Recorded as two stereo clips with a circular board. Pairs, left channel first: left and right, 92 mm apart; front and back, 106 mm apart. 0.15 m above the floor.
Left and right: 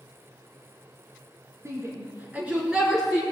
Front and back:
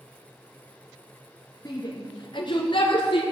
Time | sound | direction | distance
1.6 | a shout | 40° right | 2.5 m